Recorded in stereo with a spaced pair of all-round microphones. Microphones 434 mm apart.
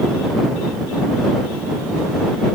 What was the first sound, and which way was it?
Only background noise.